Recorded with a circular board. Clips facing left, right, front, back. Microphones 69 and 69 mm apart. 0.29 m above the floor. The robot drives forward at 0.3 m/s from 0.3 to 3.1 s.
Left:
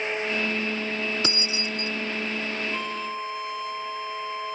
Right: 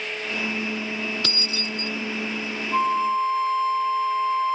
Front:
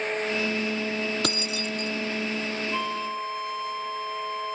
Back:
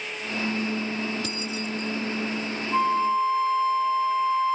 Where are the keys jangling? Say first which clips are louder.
Left 1 dB, front 2 dB; 20° left.